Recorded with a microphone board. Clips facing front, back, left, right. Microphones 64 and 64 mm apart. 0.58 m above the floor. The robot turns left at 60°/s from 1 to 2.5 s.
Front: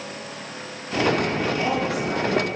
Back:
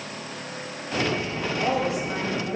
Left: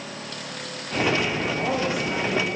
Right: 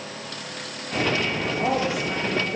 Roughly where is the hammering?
I don't hear hammering.